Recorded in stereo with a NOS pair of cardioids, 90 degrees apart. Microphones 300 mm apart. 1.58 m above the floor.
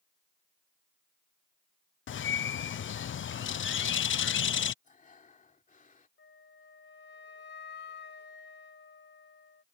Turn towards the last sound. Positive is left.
turn(degrees=40)